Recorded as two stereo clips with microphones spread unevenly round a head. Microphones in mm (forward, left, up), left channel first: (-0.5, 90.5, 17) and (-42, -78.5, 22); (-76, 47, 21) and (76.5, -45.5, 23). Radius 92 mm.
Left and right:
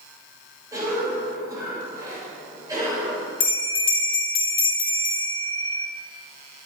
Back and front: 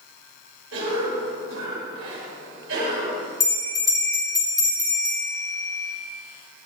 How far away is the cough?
About 5.5 m.